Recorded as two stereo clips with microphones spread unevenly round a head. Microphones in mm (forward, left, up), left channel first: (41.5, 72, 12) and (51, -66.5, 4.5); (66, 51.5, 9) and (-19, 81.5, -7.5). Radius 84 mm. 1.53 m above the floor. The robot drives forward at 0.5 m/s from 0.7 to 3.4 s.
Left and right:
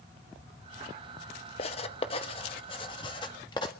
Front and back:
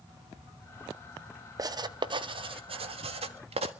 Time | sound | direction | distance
1.6 | writing | 115° left | 0.9 m